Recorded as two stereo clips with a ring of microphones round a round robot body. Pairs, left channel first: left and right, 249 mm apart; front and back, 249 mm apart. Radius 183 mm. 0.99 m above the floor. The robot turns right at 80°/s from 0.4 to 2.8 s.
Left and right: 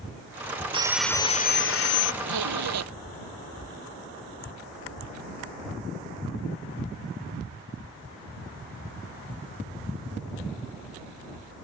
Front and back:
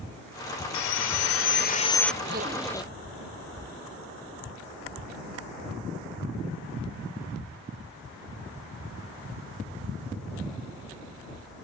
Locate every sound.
0.7 s sawing: 20° right; by 2.1 s 90° left
2.2 s a zipper: 125° right; by 2.9 s 80° right